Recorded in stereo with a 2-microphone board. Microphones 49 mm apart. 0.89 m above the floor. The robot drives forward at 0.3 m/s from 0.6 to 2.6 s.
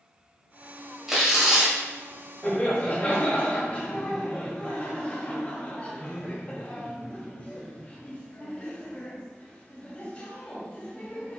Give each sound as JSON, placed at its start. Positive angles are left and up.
{"t": 1.1, "sound": "tearing paper", "side_deg": -5, "distance_m": 1.4}
{"t": 2.4, "sound": "laughter", "side_deg": 25, "distance_m": 1.5}